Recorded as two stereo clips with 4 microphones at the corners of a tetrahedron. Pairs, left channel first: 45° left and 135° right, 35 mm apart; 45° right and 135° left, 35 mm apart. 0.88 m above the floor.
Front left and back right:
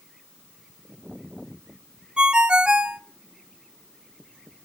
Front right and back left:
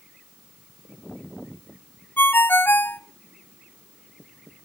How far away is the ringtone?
About 0.5 m.